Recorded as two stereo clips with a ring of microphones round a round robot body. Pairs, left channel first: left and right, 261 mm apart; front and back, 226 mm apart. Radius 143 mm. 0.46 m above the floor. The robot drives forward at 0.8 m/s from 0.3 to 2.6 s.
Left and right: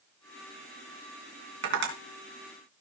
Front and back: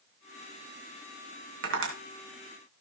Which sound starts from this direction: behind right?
Tapping, at 1.6 s.